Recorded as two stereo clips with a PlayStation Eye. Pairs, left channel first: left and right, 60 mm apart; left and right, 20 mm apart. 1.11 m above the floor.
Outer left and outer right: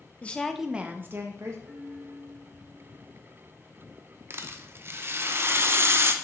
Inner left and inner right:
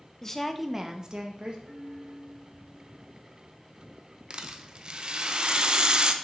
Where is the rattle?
45° right (ahead or behind), 0.7 m.